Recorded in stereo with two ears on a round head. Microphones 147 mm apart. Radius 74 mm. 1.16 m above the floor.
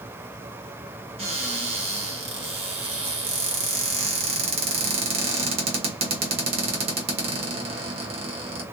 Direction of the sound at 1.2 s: 40° right (ahead or behind).